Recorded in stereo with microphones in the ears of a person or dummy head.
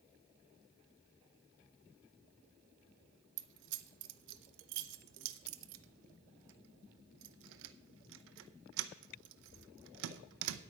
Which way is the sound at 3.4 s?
70° right (ahead or behind).